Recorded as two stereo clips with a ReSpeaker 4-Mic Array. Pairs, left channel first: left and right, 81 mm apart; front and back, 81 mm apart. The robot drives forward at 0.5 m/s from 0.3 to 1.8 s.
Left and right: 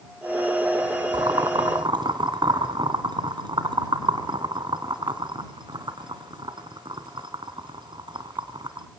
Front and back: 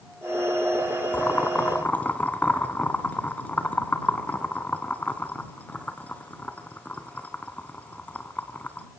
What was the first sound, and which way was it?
Boiling, 65° right.